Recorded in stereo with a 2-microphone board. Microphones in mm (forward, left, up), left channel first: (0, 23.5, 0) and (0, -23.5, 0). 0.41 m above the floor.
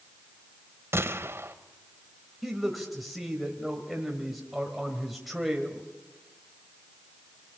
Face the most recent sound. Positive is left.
turn(degrees=0)  # may be behind; listen again after turning